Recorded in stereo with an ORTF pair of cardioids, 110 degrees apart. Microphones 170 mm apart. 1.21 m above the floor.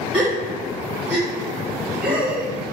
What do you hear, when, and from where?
0.1 s a gasp: 5° right, 1.9 m